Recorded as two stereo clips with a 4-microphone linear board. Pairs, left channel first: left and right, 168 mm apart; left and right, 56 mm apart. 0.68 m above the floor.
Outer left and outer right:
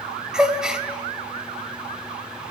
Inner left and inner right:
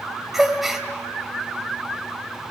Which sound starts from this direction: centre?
A gasp, at 0.3 s.